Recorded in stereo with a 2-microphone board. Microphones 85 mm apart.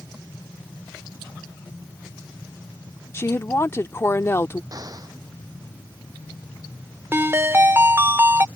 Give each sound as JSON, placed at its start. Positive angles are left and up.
{"t": 3.1, "sound": "a woman speaking", "side_deg": 30}
{"t": 4.7, "sound": "an explosion", "side_deg": -45}
{"t": 7.1, "sound": "a ringtone", "side_deg": -30}